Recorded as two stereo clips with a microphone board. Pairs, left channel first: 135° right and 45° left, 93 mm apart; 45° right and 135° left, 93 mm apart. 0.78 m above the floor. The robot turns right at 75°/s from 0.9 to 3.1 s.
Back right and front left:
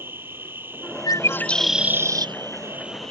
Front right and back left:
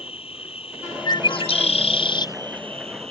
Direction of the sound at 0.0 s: 25° right.